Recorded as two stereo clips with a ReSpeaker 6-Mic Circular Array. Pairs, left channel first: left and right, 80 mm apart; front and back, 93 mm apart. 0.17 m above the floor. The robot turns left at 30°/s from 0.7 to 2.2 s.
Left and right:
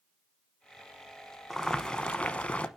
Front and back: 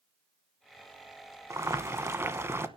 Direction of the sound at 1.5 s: 175° left.